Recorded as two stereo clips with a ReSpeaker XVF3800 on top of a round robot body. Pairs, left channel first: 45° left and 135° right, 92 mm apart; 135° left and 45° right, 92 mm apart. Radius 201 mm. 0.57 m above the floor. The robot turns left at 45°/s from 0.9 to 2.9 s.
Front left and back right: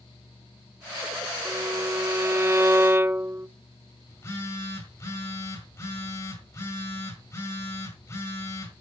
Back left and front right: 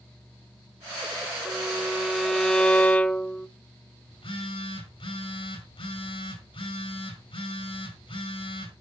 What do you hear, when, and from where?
1.4 s a violin: 100° right, 1.2 m; by 3.5 s 165° right, 1.2 m
4.1 s a phone buzzing: 105° left, 3.5 m